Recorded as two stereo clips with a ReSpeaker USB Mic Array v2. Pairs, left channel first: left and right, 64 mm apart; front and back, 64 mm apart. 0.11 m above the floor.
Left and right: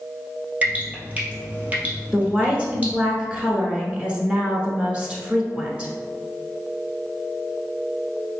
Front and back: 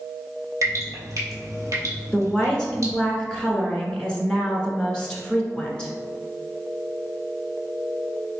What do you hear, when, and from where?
0.6 s dripping: 155° right, 1.5 m
2.1 s a woman speaking: 55° right, 1.1 m